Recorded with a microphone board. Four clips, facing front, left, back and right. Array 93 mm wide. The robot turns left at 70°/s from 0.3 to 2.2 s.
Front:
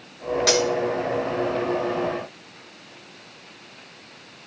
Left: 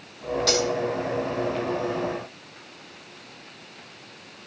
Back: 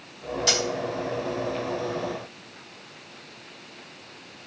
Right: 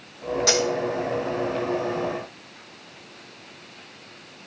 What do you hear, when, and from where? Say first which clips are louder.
0.5 s cutlery clinking: right 1 dB, front 6 dB; 10° right, 2.5 m; by 0.7 s 20° right, 2.5 m